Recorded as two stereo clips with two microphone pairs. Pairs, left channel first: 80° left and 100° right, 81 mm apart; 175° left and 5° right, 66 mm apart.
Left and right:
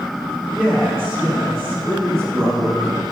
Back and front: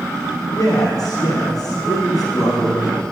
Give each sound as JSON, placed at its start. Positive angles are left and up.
{"t": 0.6, "sound": "a man speaking", "azimuth_deg": 170, "distance_m": 3.0}